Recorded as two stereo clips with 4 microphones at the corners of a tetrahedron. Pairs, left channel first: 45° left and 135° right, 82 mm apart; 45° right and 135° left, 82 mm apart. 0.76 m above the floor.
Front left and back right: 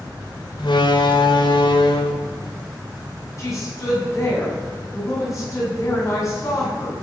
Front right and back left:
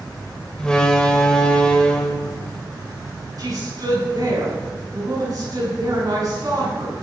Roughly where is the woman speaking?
Left.